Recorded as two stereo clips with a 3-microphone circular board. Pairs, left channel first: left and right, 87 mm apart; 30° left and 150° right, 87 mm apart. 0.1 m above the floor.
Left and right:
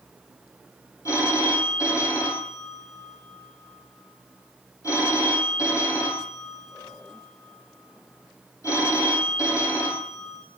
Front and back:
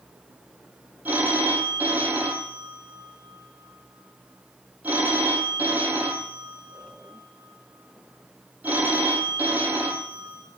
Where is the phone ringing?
140° left, 2.5 m.